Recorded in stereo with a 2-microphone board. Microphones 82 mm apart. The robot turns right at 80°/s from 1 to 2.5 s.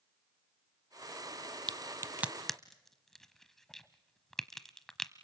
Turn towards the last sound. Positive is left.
turn(degrees=5)  # may be behind; listen again after turning